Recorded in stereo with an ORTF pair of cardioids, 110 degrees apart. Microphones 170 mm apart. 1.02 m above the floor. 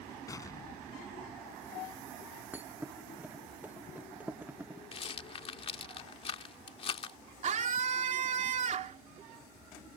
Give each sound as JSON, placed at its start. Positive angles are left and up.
{"t": 0.3, "sound": "an explosion", "azimuth_deg": 20}
{"t": 2.5, "sound": "a thud", "azimuth_deg": -10}
{"t": 4.9, "sound": "a rattle", "azimuth_deg": 35}
{"t": 7.4, "sound": "a scream", "azimuth_deg": -45}